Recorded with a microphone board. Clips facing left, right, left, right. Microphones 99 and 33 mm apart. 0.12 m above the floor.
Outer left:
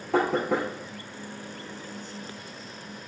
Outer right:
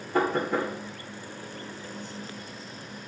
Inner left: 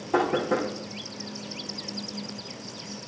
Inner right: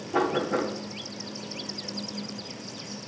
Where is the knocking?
75° left (ahead or behind), 5.5 m.